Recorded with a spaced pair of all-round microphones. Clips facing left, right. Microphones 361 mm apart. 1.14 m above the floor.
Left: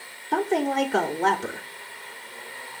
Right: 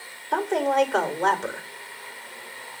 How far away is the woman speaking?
About 2 m.